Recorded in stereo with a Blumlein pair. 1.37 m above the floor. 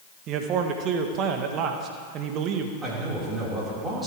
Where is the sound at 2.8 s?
15° right, 5 m.